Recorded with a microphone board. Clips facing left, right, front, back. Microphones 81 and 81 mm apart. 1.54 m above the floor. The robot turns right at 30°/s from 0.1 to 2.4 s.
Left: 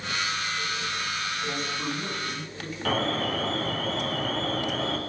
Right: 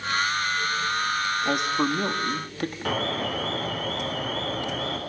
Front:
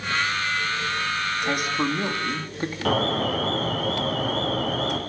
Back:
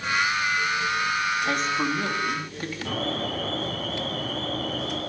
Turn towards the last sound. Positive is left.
turn(degrees=-5)